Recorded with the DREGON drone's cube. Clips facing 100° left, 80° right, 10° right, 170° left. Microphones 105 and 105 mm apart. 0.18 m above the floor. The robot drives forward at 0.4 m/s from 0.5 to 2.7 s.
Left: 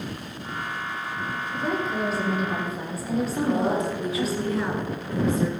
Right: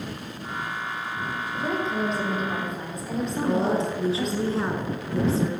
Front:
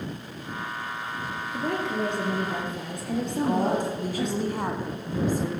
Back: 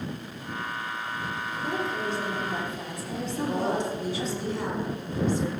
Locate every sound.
1.5 s a woman speaking: 15° left, 4.5 m
3.3 s a woman speaking: 30° right, 2.5 m